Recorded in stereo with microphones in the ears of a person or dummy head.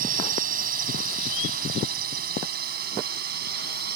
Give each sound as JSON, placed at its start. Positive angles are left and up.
{"t": 0.0, "sound": "a drone", "side_deg": -55}